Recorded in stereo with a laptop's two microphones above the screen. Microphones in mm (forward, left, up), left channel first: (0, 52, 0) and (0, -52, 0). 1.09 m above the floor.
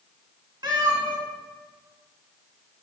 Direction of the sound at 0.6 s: 45° right (ahead or behind).